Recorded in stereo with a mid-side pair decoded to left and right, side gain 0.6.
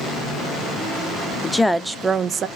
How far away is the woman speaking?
About 0.6 m.